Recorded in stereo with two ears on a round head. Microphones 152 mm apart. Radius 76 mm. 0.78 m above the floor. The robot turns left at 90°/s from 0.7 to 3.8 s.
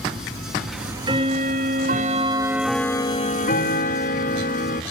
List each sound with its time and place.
0.7 s ticking: straight ahead, 0.9 m; by 4.8 s 80° left, 0.9 m